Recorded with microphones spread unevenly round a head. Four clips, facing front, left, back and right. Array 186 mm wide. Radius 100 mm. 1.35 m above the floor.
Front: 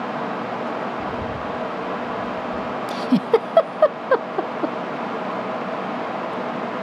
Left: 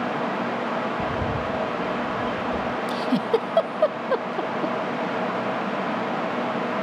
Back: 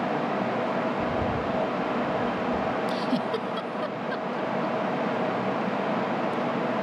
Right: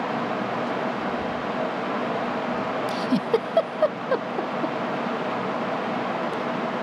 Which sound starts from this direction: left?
A bird, at 1.0 s.